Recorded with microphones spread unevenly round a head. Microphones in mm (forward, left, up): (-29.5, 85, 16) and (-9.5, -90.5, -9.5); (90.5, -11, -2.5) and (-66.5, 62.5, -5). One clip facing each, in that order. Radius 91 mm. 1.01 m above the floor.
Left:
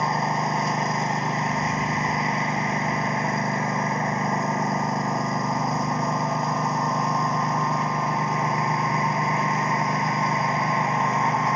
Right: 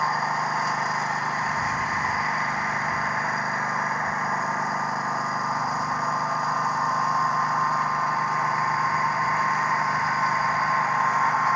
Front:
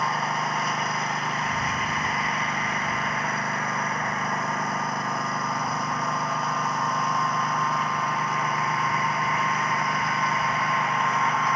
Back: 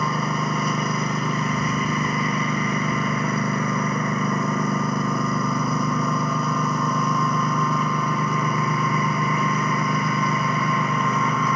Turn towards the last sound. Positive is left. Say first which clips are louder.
# left 3 dB, back 3 dB
turn(degrees=170)